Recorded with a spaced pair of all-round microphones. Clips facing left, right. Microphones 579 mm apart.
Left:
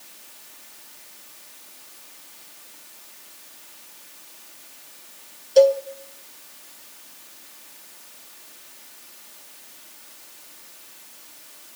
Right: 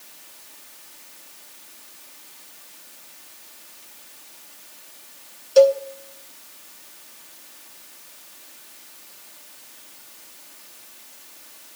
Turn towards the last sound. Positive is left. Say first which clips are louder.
# right 1 dB
turn(degrees=-35)  # may be behind; listen again after turning